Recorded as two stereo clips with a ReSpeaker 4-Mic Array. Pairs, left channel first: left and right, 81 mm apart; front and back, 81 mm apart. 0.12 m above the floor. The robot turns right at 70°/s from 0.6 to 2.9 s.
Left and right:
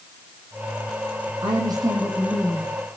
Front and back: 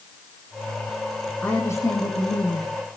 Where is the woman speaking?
75° right, 7 m; by 2.7 s 15° left, 7 m.